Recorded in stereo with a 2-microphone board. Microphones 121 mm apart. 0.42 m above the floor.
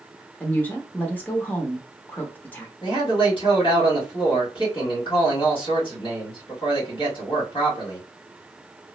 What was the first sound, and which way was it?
A woman speaking, 15° left (ahead or behind).